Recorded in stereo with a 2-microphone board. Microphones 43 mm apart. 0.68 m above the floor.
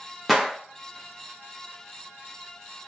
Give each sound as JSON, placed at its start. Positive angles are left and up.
{"t": 0.3, "sound": "a gunshot", "side_deg": 0, "distance_m": 0.8}